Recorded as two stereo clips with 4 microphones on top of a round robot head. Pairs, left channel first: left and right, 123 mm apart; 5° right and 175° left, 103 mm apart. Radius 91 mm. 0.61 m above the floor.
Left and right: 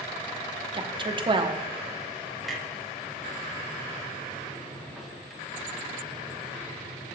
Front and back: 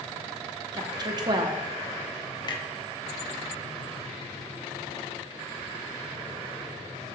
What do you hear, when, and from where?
0.7 s a woman speaking: 135° right, 1.0 m
2.4 s a clunk: straight ahead, 1.3 m